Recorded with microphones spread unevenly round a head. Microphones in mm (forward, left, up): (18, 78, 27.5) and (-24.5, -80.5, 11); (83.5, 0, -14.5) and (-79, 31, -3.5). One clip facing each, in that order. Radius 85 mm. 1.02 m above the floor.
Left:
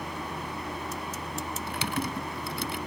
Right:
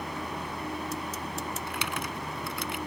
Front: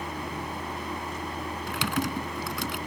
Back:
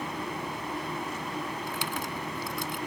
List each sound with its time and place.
1.7 s typing on a keyboard: 15° left